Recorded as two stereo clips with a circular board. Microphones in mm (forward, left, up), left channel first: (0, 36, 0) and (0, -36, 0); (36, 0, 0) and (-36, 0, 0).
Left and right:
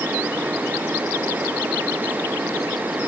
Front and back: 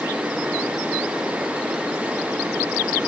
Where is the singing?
No singing in this recording.